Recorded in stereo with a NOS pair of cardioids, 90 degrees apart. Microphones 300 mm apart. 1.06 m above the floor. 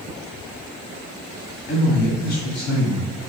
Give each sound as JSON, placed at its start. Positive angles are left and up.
{"t": 1.7, "sound": "a man speaking", "azimuth_deg": 40, "distance_m": 1.6}